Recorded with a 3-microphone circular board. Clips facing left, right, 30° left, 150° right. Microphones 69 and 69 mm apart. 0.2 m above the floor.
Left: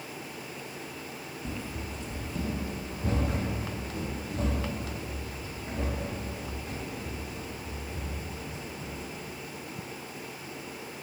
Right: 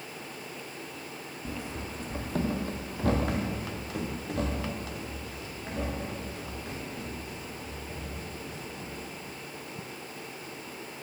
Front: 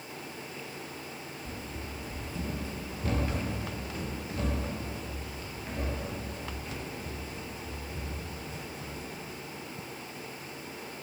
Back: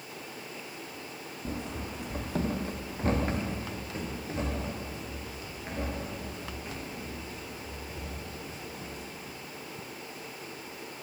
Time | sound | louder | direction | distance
1.4 | running footsteps | right 1 dB, back 7 dB | 175° right | 0.6 m